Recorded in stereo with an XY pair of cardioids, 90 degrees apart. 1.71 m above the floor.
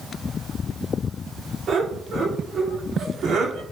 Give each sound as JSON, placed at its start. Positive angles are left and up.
{"t": 1.7, "sound": "laughter", "azimuth_deg": -60, "distance_m": 5.5}